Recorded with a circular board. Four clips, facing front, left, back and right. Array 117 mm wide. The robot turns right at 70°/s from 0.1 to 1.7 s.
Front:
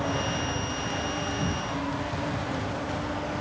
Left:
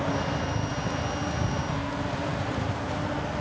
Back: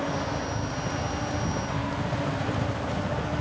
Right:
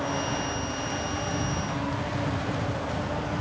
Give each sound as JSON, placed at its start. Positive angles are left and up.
{"t": 0.0, "sound": "a helicopter", "azimuth_deg": 80}